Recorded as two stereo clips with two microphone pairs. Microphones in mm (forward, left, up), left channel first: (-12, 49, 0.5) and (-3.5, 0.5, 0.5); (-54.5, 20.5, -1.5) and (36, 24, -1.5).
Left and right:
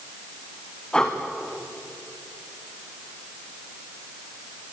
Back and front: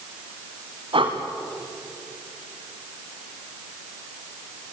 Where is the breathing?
25° left, 3 m.